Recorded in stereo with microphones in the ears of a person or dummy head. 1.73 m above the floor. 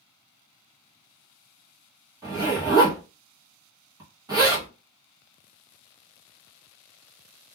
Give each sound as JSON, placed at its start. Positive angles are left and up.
{"t": 2.2, "sound": "a zipper", "side_deg": -20, "distance_m": 0.6}